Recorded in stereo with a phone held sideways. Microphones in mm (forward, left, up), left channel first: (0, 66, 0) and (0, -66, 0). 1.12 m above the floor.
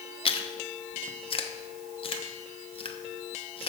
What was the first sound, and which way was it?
Chewing, 45° left (ahead or behind).